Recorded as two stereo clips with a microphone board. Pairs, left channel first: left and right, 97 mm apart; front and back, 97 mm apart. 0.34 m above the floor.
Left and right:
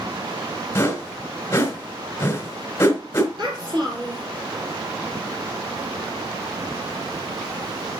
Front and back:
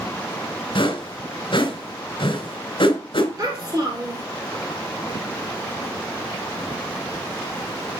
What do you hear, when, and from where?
0.8 s a whoosh: 25° left, 2.5 m
3.4 s a child speaking: 125° right, 6 m